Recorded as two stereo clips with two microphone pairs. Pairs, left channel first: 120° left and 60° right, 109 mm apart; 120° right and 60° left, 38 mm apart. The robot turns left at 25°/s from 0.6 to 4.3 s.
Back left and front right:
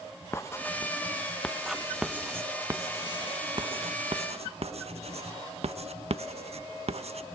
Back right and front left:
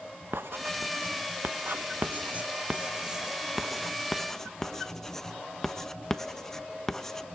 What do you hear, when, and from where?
0.3 s writing: 50° left, 0.8 m; by 7.3 s 40° right, 0.8 m